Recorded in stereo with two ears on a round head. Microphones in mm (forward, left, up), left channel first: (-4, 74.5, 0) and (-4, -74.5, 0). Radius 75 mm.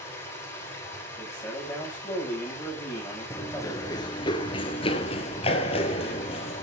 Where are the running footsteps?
15° left (ahead or behind), 1.3 m; by 6.7 s 35° left (ahead or behind), 2.5 m.